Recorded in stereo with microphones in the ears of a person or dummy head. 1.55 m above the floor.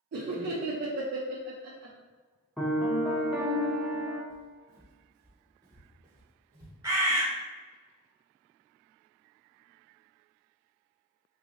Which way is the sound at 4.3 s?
20° right (ahead or behind).